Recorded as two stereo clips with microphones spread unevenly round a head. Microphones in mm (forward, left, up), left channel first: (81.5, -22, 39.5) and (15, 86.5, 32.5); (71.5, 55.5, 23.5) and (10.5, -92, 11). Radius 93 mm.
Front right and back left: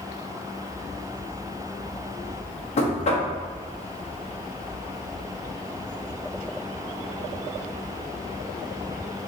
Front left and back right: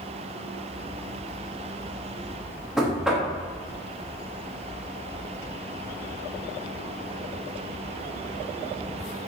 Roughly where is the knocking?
Ahead right.